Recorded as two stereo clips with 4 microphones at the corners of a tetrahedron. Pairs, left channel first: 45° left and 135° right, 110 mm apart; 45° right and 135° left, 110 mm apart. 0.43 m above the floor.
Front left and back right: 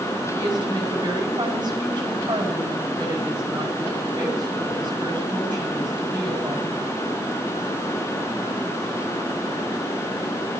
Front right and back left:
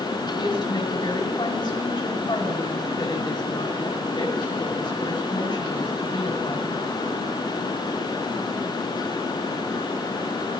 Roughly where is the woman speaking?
Right.